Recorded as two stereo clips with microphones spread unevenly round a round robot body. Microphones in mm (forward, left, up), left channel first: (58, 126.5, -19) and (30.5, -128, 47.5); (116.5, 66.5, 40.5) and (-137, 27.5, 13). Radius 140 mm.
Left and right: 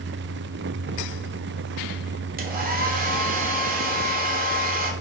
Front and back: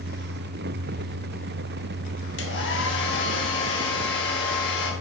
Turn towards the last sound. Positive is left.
turn(degrees=-35)